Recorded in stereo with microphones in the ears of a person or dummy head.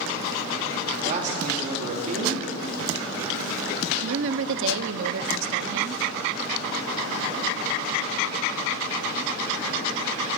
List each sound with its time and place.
1.0 s a man speaking: 40° right (ahead or behind), 3.5 m
4.0 s a woman speaking: 65° right (ahead or behind), 0.6 m